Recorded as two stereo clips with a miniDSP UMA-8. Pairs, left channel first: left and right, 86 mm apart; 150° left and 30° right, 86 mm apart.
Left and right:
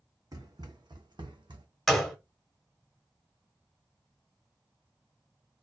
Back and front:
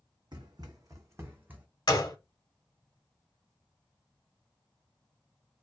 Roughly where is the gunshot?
Behind.